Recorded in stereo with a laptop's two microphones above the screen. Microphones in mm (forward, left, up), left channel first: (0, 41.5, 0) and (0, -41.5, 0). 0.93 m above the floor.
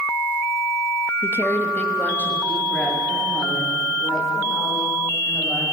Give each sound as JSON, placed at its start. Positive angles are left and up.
{"t": 1.2, "sound": "a woman speaking", "side_deg": 30, "distance_m": 0.6}